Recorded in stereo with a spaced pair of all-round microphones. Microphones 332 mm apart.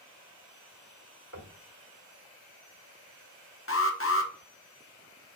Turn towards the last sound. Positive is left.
turn(degrees=40)  # may be behind; listen again after turning